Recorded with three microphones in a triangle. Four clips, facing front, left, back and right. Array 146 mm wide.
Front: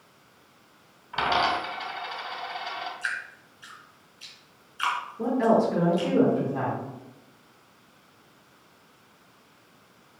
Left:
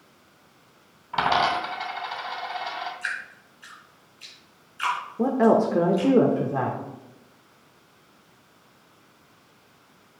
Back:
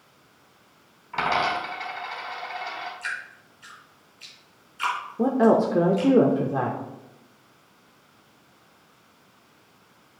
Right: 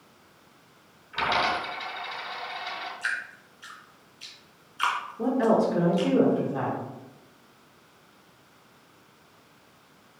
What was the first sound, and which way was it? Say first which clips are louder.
A dropped coin: left 4 dB, even; 100° left.